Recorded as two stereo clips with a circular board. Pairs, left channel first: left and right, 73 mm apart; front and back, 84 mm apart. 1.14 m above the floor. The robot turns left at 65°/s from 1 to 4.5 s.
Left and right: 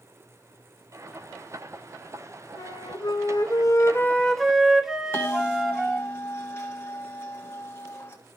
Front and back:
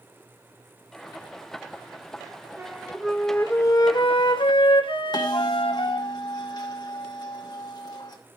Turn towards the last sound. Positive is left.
turn(degrees=35)